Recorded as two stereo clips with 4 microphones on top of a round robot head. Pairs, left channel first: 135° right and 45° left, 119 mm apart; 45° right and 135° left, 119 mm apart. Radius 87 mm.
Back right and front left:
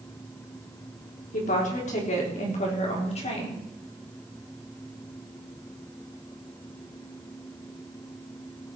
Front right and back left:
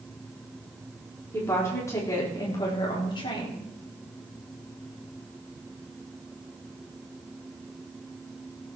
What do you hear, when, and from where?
1.3 s a woman speaking: 115° right, 4.5 m; by 3.6 s 95° right, 4 m